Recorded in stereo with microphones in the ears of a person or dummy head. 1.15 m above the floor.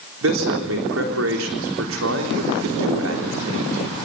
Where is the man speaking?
70° right (ahead or behind), 3.5 m.